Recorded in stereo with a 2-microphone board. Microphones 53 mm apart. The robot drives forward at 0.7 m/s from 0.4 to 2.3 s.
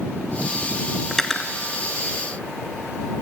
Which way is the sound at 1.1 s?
10° left (ahead or behind).